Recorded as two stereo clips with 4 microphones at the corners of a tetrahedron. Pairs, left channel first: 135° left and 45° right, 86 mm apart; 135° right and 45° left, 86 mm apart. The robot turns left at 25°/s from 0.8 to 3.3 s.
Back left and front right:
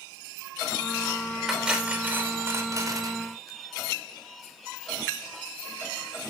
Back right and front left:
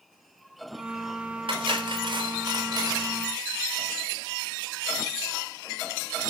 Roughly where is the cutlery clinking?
Ahead left.